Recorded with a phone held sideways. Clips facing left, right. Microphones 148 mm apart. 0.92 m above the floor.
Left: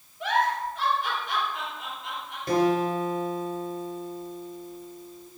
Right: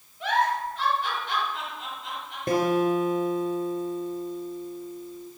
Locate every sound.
0.2 s a giggle: centre (ahead or behind), 4 m
2.5 s a guitar: 50° right (ahead or behind), 2.5 m